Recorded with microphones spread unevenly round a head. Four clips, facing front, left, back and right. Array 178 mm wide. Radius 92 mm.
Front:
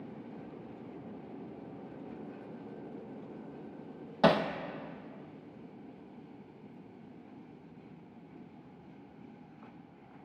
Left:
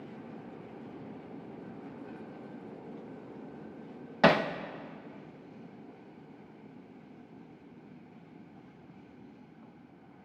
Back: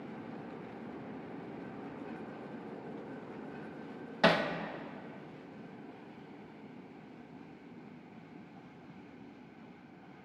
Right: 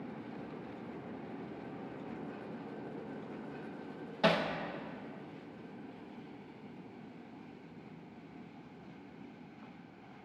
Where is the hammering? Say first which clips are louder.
Left 6 dB, front 2 dB; 70° left, 0.5 m.